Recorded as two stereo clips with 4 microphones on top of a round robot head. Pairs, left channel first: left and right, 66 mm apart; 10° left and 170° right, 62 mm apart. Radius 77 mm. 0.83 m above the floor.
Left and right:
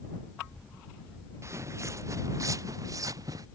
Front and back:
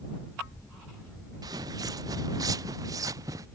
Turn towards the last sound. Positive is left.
turn(degrees=-135)